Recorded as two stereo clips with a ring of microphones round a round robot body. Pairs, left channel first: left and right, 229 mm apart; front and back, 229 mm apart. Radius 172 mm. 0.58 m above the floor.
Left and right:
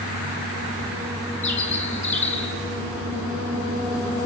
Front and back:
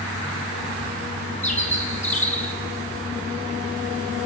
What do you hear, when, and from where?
1.4 s a bird: 60° left, 8 m